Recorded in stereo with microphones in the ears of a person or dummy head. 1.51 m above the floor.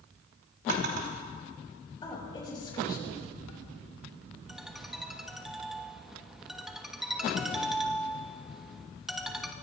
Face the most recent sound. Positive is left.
turn(degrees=0)  # may be behind; listen again after turning